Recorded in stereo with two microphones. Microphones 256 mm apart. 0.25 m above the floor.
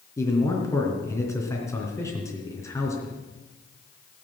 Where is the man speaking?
10° left (ahead or behind), 3 m.